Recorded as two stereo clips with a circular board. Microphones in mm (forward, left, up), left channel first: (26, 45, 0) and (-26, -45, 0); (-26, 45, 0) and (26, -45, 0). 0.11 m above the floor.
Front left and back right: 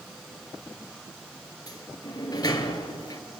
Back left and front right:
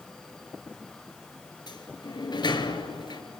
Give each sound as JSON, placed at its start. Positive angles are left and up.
{"t": 1.7, "sound": "a sliding door", "azimuth_deg": 95, "distance_m": 1.6}